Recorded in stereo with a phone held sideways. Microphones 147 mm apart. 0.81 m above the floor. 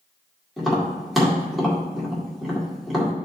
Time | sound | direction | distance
0.6 | tapping | centre (ahead or behind) | 1.9 m